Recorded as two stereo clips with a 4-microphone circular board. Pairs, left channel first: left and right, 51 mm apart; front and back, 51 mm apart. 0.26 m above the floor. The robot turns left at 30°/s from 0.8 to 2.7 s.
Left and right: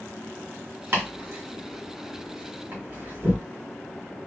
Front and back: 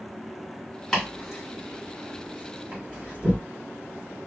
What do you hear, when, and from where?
0.9 s chopping: 75° right, 2.5 m; by 3.4 s 130° right, 2.5 m